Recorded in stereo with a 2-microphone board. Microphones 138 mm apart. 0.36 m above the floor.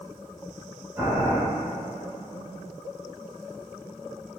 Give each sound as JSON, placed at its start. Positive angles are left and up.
{"t": 1.0, "sound": "boiling", "side_deg": -20, "distance_m": 0.8}